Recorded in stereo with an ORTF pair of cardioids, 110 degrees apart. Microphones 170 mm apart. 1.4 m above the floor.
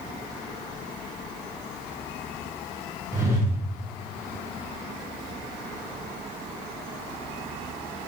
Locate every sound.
3.1 s a whoosh: 15° right, 1.2 m